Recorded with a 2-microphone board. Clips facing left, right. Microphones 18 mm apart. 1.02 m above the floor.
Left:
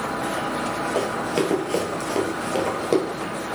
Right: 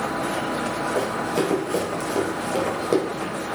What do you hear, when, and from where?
0.9 s running footsteps: 25° left (ahead or behind), 1.2 m; by 3.0 s 15° left (ahead or behind), 1.2 m